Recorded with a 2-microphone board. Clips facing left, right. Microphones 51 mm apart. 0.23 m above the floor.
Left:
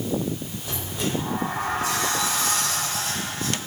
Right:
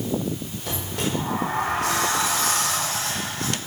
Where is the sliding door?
65° right (ahead or behind), 7 m.